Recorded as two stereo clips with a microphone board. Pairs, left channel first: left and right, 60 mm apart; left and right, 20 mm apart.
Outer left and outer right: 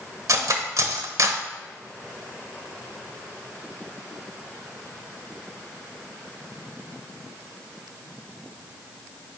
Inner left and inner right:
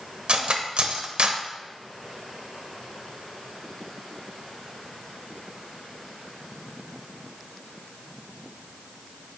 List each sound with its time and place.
0.3 s cutlery clinking: 60° right (ahead or behind), 1.0 m